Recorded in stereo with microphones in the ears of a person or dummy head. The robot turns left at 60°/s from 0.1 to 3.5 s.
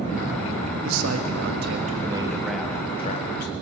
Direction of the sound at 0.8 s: 75° right.